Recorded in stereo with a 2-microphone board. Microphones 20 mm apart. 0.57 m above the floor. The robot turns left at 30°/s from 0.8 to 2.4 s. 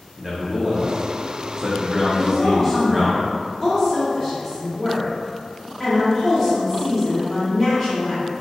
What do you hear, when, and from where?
0.2 s a man speaking: 25° right (ahead or behind), 0.6 m; by 3.1 s 5° right (ahead or behind), 0.6 m
2.1 s a woman speaking: 15° left (ahead or behind), 1.0 m; by 8.2 s 20° left (ahead or behind), 1.0 m